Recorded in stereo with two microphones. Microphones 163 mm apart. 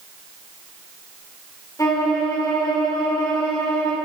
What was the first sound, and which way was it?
A violin, 20° left (ahead or behind).